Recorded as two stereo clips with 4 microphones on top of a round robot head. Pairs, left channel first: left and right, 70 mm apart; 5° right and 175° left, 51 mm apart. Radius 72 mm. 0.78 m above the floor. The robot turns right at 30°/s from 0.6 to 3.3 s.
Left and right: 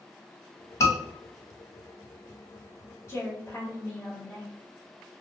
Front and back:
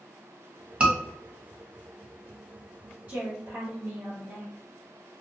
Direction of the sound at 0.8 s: 110° left.